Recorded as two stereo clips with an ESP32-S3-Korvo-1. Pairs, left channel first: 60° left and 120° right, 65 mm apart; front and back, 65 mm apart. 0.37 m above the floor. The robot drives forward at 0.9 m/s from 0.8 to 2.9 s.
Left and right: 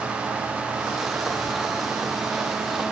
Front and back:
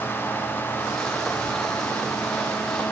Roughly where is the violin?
I don't hear a violin.